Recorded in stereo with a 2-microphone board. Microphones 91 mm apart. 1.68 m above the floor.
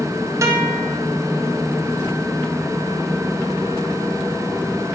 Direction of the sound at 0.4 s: 30° right (ahead or behind).